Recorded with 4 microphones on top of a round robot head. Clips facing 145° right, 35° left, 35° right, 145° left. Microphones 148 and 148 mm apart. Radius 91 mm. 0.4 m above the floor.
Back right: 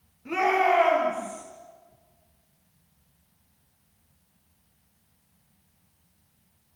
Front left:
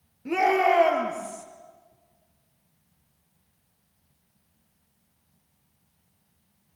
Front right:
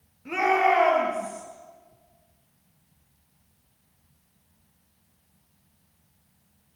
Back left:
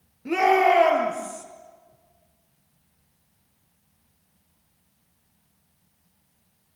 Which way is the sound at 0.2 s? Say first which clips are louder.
Front left 1 dB, back left 4 dB; 90° left.